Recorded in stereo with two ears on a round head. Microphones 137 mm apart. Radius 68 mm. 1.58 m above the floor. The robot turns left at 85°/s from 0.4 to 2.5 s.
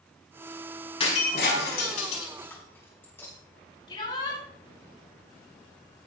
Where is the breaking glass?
35° left (ahead or behind), 4.5 m; by 3.3 s 15° left (ahead or behind), 4.5 m.